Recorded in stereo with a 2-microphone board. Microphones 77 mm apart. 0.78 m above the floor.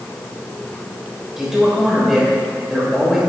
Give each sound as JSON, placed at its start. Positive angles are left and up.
{"t": 1.4, "sound": "a man speaking", "side_deg": -5, "distance_m": 3.5}